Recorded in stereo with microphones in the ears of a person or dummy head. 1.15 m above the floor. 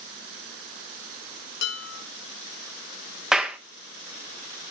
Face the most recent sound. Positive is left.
turn(degrees=5)  # may be behind; listen again after turning